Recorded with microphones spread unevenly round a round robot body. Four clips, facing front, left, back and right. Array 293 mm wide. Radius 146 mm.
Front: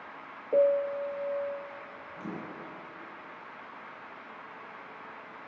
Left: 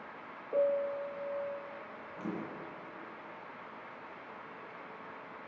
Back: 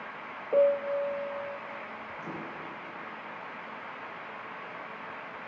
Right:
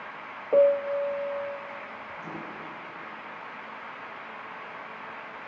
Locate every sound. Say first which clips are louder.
0.5 s a piano: right 10 dB, even; 80° right, 1.0 m
2.2 s a microwave: left 1 dB, front 2 dB; 55° left, 9.5 m